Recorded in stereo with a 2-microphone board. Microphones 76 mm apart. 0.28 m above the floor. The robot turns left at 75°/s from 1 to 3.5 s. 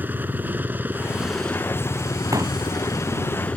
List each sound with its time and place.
0.0 s a helicopter: 150° right; by 3.6 s 20° left
2.3 s a pop: 50° right (ahead or behind); by 2.6 s 30° right (ahead or behind)